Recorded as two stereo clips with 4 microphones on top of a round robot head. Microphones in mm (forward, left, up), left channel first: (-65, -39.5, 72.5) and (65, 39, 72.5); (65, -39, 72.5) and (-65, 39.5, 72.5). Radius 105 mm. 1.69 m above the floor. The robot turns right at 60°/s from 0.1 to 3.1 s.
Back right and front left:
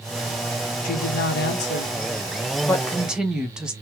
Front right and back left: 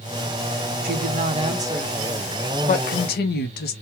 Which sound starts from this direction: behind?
A woman speaking, at 0.8 s.